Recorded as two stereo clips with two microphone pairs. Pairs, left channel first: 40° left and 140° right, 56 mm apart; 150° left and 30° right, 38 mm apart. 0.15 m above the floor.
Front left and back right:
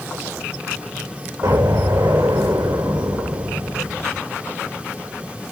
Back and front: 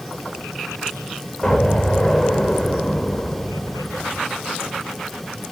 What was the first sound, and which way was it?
An explosion, 145° right.